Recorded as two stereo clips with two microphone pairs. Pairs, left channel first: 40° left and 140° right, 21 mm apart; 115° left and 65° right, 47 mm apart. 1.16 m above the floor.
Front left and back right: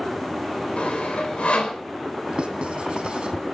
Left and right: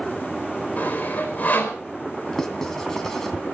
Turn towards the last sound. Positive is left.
turn(degrees=-165)